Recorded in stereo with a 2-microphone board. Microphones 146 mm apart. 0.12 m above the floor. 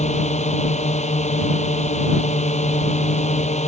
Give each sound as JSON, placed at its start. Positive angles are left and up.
{"t": 0.0, "sound": "a drone", "side_deg": 55}